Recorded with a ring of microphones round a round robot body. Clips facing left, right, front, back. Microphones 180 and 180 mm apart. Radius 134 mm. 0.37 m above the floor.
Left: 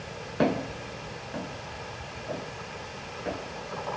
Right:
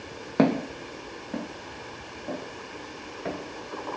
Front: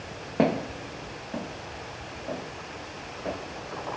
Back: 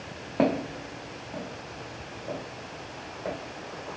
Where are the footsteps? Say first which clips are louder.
Right 4 dB, even; 85° right, 0.9 m; by 4.0 s 90° right, 3 m.